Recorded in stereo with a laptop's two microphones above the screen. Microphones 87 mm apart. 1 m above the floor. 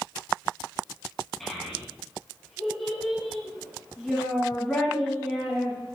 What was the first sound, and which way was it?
A child speaking, 5° left (ahead or behind).